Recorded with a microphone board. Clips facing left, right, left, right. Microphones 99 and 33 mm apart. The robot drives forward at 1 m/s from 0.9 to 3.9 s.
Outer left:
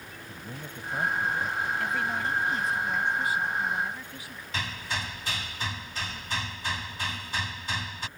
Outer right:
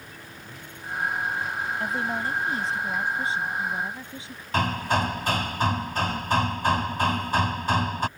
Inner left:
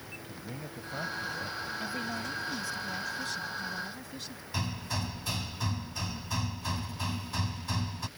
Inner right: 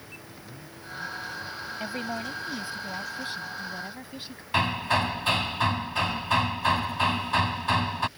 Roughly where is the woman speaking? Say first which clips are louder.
Outer right 2 dB, inner right 6 dB; right.